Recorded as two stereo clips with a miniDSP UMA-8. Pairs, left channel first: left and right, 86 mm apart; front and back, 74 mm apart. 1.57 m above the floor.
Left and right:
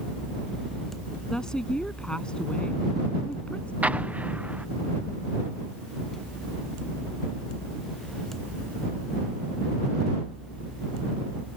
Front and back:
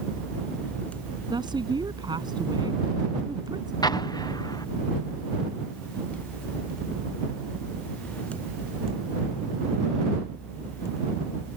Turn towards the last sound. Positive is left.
turn(degrees=-20)